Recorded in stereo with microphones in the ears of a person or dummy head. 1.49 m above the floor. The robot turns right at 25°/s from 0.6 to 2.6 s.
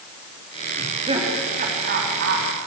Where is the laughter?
20° right (ahead or behind), 4 m; by 2.5 s 60° right (ahead or behind), 4 m.